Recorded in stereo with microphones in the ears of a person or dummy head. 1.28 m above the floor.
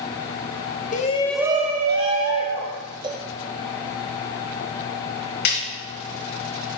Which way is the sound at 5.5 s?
50° left (ahead or behind).